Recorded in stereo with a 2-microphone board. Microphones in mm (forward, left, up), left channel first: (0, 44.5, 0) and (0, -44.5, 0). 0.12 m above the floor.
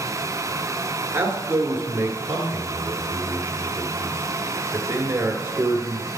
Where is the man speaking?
25° right (ahead or behind), 1.7 m.